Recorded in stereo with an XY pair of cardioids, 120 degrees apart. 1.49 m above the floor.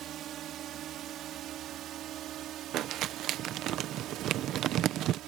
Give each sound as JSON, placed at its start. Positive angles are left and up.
{"t": 0.0, "sound": "a drone", "azimuth_deg": -65}
{"t": 2.7, "sound": "crumpling", "azimuth_deg": -70}